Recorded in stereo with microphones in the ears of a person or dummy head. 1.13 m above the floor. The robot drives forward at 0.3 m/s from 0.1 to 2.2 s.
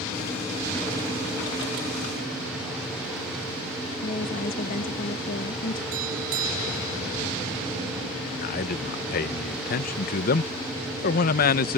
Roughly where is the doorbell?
Right.